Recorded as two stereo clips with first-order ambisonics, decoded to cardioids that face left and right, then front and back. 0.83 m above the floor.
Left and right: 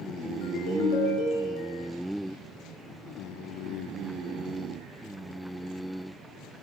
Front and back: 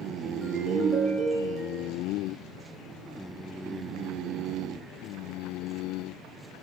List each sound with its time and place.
0.4 s a ringtone: 75° left, 7 m